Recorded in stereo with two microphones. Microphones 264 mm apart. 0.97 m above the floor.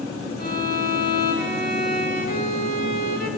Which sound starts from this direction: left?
A violin, at 0.4 s.